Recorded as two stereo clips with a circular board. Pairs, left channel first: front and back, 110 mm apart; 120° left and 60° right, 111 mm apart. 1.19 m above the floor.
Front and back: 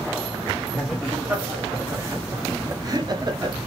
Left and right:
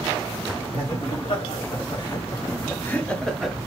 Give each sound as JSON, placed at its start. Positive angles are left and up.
{"t": 0.7, "sound": "laughter", "azimuth_deg": 95, "distance_m": 1.3}